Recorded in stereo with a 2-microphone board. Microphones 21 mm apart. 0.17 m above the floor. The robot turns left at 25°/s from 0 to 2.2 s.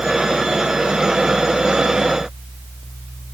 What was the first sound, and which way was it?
Only background noise.